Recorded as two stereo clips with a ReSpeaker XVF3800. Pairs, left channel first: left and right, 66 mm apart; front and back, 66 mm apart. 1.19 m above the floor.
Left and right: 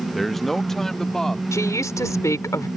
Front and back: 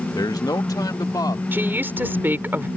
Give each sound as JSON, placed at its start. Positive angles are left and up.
{"t": 0.1, "sound": "a man speaking", "azimuth_deg": 0}
{"t": 1.5, "sound": "a woman speaking", "azimuth_deg": 125}